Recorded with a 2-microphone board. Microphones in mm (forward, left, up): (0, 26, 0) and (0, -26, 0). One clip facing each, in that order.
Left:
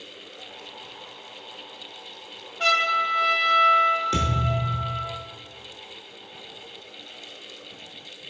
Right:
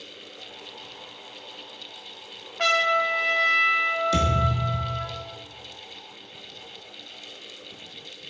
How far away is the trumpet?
About 0.6 m.